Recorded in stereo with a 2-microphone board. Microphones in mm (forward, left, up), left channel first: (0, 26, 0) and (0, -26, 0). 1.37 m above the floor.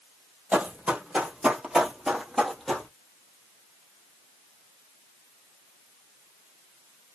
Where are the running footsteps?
25° right (ahead or behind), 1.5 m; by 2.9 s 5° left (ahead or behind), 1.4 m.